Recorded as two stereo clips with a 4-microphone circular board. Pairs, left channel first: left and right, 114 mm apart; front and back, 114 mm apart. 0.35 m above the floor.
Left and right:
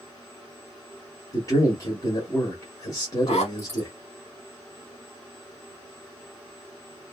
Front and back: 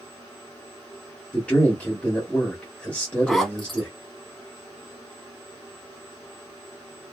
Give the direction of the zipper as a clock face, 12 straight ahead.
9 o'clock.